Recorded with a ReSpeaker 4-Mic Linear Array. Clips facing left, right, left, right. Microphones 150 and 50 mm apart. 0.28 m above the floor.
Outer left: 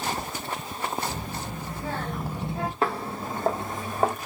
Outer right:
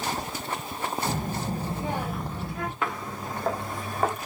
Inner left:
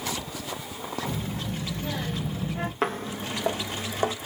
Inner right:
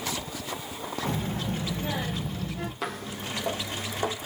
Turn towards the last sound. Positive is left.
turn(degrees=20)  # may be behind; listen again after turning